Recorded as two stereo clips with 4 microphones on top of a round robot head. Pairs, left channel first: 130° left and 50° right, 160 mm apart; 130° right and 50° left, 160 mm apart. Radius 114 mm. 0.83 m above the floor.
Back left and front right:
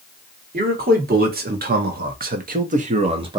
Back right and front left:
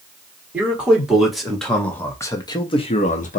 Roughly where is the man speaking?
Ahead right.